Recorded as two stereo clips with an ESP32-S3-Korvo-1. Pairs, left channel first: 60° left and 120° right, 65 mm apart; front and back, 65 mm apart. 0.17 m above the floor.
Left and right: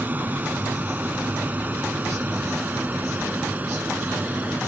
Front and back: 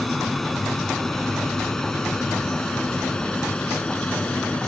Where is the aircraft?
85° right; by 4.7 s 65° right.